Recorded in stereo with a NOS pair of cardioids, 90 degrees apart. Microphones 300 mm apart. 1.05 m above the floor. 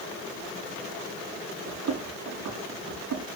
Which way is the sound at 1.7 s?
65° right.